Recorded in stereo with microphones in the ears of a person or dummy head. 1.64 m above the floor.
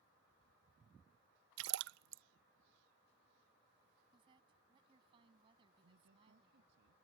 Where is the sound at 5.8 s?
70° right (ahead or behind).